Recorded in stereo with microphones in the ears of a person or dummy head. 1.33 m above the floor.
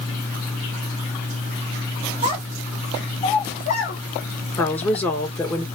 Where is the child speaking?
35° right (ahead or behind), 0.9 m; by 4.0 s 45° left (ahead or behind), 1.6 m.